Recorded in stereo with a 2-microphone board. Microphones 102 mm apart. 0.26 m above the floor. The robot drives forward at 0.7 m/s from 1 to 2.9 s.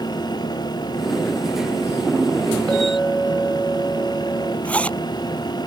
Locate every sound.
2.7 s a clink: 10° left (ahead or behind)
4.7 s a zipper: 10° left (ahead or behind)